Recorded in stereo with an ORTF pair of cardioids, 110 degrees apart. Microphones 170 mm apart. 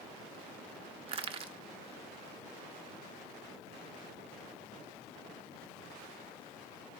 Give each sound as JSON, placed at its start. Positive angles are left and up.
{"t": 1.1, "sound": "crushing", "azimuth_deg": -35, "distance_m": 0.7}